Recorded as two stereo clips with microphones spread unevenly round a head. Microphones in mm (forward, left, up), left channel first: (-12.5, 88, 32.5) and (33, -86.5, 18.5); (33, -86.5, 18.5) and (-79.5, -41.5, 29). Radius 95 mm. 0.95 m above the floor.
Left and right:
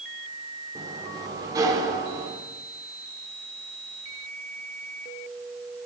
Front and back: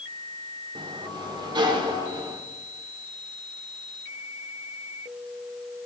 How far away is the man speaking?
No man speaking in this recording.